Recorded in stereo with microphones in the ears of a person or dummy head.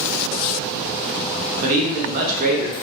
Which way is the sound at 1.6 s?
45° right (ahead or behind).